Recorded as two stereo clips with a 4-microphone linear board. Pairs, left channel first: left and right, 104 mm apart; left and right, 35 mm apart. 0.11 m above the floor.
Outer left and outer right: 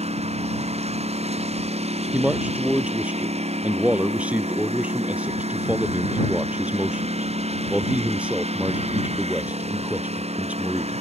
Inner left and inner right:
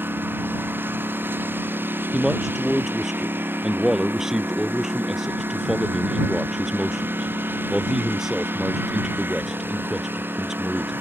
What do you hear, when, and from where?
0.0 s a lawn mower: 85° right
2.1 s a man speaking: 10° right (ahead or behind)